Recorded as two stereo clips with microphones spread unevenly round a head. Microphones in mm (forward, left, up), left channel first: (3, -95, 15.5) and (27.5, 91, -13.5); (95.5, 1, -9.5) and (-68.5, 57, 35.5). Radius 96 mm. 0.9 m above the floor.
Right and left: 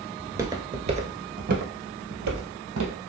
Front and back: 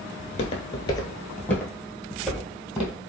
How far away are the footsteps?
About 0.9 m.